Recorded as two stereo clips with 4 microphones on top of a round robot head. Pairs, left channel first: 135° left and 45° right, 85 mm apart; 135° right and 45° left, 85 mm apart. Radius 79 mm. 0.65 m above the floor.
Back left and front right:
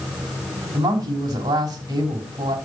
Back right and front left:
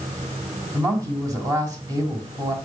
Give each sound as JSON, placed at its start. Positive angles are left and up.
{"t": 0.7, "sound": "a woman speaking", "azimuth_deg": 0, "distance_m": 4.5}